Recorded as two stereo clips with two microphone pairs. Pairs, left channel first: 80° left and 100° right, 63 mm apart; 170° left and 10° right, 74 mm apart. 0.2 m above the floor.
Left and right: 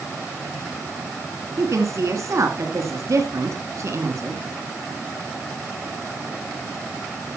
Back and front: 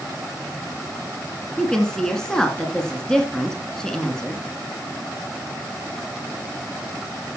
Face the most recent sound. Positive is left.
turn(degrees=-115)